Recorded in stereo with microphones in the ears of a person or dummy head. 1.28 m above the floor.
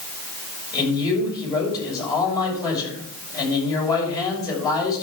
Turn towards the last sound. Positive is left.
turn(degrees=20)  # may be behind; listen again after turning